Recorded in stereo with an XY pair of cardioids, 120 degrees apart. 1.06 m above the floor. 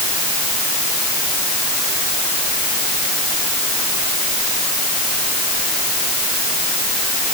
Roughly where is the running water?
I don't hear running water.